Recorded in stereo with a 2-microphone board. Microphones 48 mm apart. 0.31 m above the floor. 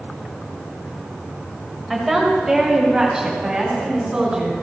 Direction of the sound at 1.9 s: 5° right (ahead or behind).